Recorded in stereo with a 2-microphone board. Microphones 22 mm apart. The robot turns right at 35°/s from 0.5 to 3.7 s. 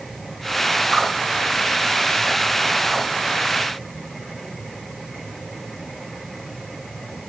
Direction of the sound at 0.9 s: Centre (ahead or behind).